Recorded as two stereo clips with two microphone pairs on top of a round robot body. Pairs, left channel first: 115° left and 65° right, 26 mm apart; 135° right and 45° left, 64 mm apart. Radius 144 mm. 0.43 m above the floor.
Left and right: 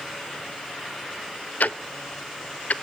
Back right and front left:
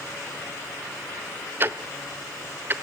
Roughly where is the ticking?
Left.